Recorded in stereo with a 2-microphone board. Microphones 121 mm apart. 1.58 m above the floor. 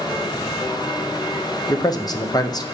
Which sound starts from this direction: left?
A man speaking, at 1.7 s.